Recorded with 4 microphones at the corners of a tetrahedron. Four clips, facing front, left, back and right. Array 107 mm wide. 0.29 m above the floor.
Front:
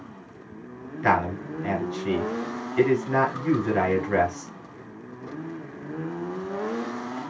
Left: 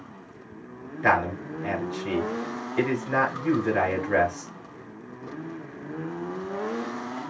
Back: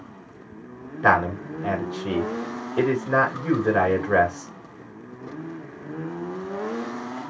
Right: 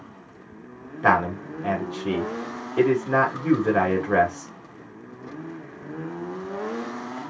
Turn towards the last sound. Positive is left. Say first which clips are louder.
# right 2 dB, back 3 dB
turn(degrees=-135)